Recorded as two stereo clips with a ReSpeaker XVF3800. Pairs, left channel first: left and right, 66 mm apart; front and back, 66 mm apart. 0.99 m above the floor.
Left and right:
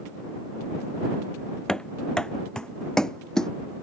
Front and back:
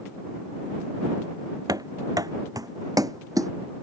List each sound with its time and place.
1.7 s running footsteps: 170° left